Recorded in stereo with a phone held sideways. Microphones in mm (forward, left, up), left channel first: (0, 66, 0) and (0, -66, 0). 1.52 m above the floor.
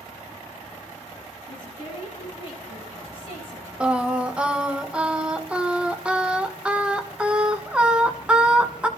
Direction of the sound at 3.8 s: 10° right (ahead or behind).